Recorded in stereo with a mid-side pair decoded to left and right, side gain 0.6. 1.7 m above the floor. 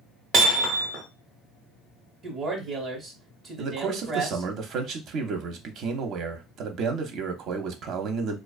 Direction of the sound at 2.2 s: 45° right.